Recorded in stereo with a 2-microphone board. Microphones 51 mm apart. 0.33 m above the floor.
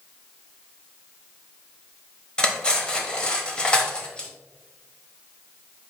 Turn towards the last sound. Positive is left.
turn(degrees=15)  # may be behind; listen again after turning